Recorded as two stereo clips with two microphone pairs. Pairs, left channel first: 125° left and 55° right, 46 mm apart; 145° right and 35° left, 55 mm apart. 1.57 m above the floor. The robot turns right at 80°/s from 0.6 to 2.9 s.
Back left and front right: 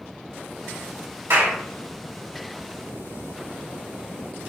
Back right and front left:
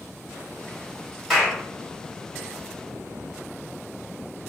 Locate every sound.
1.3 s a clap: 60° right, 1.9 m; by 1.6 s 35° right, 1.9 m